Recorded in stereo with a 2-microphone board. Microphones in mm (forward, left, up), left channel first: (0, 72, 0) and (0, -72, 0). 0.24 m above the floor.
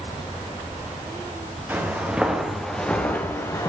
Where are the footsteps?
15° right (ahead or behind), 2 m; by 3.7 s 25° left (ahead or behind), 1.8 m.